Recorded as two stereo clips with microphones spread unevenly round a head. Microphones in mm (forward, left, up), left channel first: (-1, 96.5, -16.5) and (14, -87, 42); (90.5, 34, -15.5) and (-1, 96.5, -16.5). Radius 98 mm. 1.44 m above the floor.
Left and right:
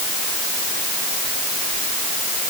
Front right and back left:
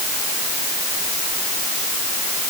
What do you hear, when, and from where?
Only background noise.